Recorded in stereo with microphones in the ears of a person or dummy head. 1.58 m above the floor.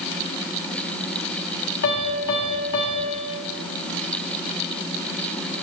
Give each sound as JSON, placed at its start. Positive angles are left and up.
{"t": 1.8, "sound": "a piano", "side_deg": 50, "distance_m": 1.6}